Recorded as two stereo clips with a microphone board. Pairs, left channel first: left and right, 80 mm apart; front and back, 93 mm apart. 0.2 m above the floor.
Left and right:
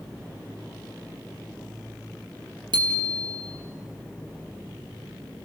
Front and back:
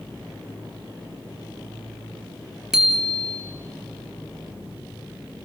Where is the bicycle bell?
95° right, 3 m.